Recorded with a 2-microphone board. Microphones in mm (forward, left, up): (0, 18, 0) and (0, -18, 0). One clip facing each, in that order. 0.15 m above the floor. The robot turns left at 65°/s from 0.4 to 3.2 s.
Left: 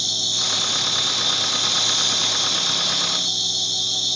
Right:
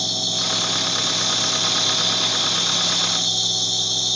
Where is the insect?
95° left, 3.5 m; by 4.2 s 85° right, 3.5 m.